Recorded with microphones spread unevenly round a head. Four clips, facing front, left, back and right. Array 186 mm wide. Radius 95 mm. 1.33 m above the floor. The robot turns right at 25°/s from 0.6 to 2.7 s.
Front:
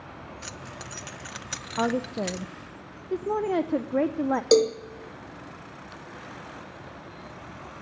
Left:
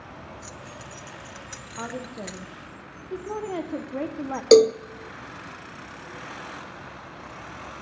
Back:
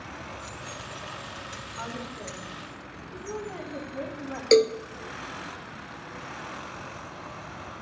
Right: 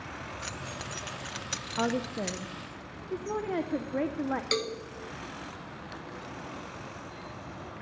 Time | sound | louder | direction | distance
0.4 | keys jangling | right 2 dB, back 1 dB | 70° right | 0.5 m
1.8 | a woman speaking | right 4 dB, front 12 dB | 20° right | 0.7 m
4.5 | a cowbell | left 18 dB, back 1 dB | 90° left | 0.6 m